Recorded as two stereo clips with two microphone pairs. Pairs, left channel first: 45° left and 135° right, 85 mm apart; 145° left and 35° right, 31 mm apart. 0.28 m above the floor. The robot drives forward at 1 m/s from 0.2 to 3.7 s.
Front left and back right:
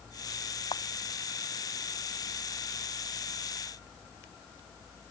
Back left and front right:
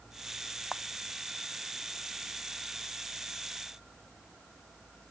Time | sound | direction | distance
0.7 | a camera shutter | 60° left | ?